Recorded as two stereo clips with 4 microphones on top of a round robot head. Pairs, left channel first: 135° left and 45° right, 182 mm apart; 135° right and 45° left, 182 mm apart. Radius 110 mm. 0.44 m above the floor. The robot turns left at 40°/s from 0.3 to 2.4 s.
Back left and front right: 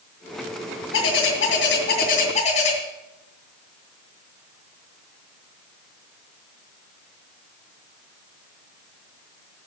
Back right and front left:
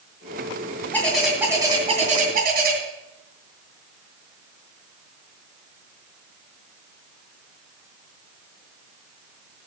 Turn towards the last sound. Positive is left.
turn(degrees=85)